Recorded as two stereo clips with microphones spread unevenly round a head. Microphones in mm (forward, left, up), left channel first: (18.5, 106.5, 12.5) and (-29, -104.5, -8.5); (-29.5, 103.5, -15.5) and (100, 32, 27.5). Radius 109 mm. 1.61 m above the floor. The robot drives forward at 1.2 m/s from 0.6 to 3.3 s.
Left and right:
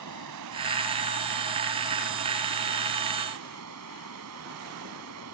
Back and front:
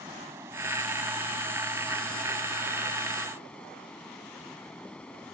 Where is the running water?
105° right; by 5.3 s 120° right.